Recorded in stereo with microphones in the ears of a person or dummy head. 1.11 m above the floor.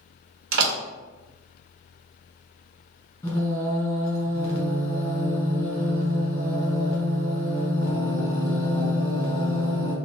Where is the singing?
20° left (ahead or behind), 1.3 m.